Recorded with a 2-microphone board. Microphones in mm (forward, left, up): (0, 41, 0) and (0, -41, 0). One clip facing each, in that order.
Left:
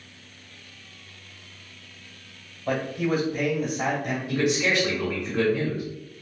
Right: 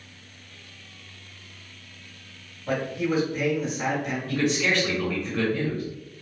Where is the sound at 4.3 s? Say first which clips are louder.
Left 1 dB; 15° left (ahead or behind), 1.4 m.